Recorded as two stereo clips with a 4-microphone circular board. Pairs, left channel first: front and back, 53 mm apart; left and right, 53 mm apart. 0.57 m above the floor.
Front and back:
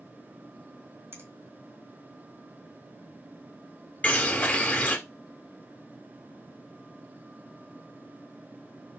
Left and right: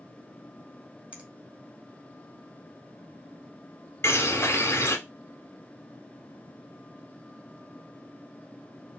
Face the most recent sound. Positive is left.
turn(degrees=60)